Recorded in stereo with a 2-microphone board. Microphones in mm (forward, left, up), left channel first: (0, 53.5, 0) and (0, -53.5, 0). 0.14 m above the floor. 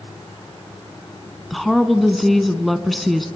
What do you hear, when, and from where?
1.5 s a woman speaking: centre (ahead or behind), 1.0 m